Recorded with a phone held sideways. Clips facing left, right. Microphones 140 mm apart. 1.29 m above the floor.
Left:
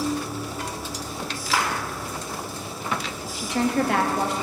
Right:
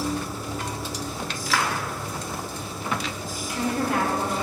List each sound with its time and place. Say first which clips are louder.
0.0 s a machine running: left 2 dB; 10° left (ahead or behind), 3.5 m
1.5 s a clap: left 1 dB; 25° left (ahead or behind), 2.5 m
3.3 s a woman speaking: left 4 dB; 80° left, 1.4 m